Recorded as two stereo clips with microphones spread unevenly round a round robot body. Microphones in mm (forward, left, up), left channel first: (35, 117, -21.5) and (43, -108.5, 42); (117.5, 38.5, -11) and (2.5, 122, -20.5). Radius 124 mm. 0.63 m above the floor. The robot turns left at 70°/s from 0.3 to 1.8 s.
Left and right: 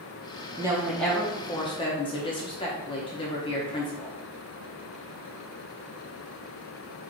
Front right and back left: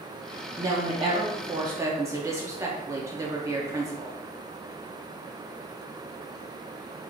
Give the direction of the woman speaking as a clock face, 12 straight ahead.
6 o'clock.